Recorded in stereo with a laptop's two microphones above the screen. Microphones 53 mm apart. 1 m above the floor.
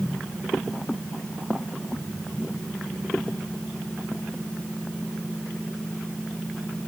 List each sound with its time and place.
Only background noise.